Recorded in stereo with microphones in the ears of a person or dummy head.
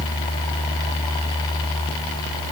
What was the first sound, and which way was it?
Only background noise.